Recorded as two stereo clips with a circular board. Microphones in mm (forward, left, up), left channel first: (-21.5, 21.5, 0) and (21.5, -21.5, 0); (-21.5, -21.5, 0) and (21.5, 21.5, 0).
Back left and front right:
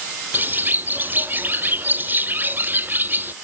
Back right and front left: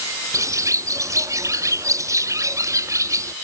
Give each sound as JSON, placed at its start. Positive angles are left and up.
{"t": 0.3, "sound": "a bird", "azimuth_deg": 15}